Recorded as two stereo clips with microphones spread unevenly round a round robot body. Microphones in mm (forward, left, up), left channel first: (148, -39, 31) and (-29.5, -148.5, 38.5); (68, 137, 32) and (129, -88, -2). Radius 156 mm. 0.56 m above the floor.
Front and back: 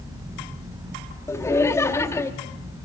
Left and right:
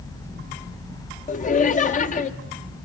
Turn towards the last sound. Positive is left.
turn(degrees=85)